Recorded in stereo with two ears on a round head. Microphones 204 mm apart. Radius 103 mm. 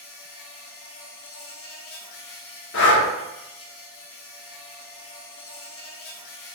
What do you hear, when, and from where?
0.0 s an insect: 65° left (ahead or behind), 1.4 m
2.7 s breathing: 50° left (ahead or behind), 1.3 m